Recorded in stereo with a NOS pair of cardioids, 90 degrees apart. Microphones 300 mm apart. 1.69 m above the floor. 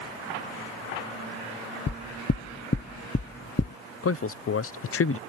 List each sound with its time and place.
1.9 s knocking: 35° left
4.0 s a man speaking: 50° left